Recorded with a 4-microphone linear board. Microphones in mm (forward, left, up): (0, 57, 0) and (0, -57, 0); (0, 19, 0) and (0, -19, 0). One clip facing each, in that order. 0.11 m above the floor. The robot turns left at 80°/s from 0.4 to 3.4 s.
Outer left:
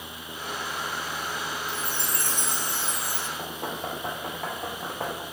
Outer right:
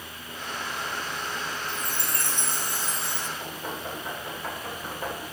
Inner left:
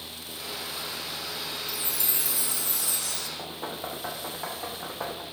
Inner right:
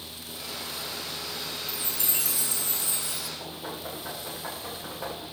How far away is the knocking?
About 5 m.